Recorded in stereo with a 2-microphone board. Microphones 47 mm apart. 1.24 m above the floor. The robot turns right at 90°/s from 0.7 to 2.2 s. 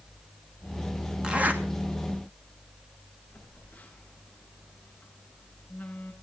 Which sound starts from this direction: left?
A phone buzzing, at 3.3 s.